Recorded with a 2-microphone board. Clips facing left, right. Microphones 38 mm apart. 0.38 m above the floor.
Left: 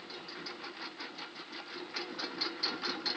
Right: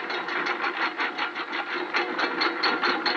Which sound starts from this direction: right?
A lawn mower, at 0.0 s.